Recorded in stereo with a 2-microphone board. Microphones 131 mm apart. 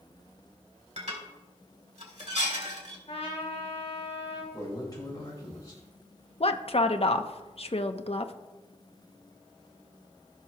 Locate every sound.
1.0 s dishes clattering: 60° right (ahead or behind), 2 m
3.1 s a trumpet: 50° left (ahead or behind), 2.5 m
4.5 s a man speaking: 30° left (ahead or behind), 5 m
6.4 s a woman speaking: 50° left (ahead or behind), 0.7 m